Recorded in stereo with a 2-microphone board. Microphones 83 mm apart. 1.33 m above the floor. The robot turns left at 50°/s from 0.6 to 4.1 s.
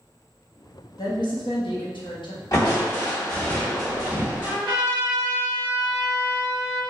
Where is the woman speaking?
130° left, 0.8 m; by 2.4 s 60° left, 0.8 m.